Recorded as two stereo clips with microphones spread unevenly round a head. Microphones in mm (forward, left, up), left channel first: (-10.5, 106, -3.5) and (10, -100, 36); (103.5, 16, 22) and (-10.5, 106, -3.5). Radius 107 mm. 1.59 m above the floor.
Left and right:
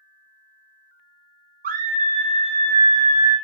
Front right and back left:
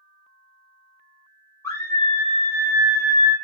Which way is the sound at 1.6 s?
100° right.